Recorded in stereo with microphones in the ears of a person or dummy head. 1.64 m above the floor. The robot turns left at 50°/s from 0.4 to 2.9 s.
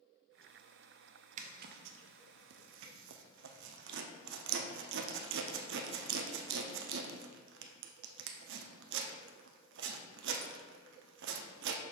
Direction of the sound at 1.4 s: 35° right (ahead or behind).